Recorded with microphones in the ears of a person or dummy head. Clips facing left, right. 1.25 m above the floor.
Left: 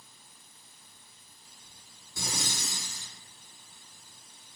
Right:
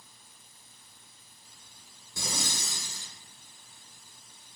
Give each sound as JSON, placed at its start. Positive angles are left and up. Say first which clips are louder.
{"t": 2.2, "sound": "breathing", "louder": "even", "side_deg": -65, "distance_m": 1.5}